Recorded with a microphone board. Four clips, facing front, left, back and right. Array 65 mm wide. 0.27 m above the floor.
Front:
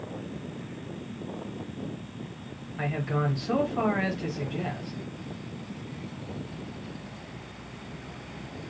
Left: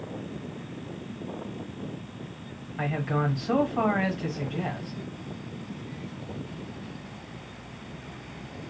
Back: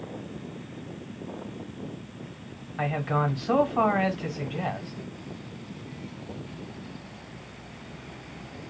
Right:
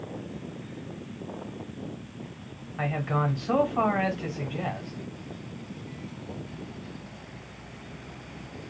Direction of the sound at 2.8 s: 160° right.